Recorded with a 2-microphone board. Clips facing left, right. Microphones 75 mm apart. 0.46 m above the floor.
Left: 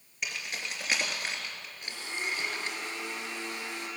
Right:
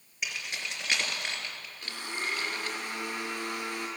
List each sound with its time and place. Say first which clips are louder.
0.2 s keys jangling: even; centre (ahead or behind), 4.5 m; by 2.8 s 20° left (ahead or behind), 4.5 m
1.8 s a blender: right 1 dB; 50° right (ahead or behind), 5 m